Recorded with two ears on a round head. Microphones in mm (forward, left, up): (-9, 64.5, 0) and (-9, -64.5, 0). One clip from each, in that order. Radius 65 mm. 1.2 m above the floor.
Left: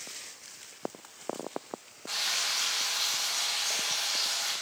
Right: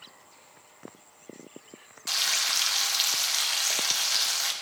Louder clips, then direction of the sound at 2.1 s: Right 4 dB; 80° right.